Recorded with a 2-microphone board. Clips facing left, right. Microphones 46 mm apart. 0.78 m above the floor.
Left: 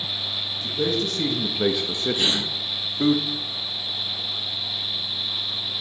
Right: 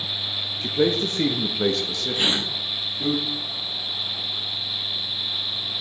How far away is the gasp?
About 1.5 m.